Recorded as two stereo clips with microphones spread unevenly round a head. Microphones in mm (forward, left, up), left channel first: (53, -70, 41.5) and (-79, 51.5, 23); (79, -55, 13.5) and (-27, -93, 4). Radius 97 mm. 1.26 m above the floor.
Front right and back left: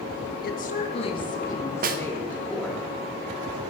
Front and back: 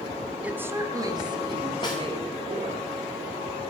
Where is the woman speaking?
80° right, 1.7 m; by 2.8 s 130° right, 4 m.